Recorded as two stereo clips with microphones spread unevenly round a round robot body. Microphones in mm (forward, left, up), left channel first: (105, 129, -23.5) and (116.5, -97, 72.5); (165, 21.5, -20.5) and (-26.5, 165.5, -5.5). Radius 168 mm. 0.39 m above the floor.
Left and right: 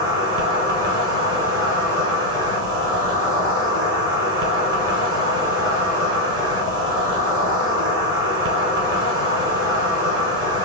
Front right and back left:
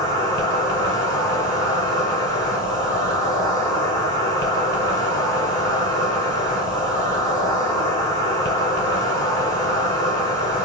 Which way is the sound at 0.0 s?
10° left.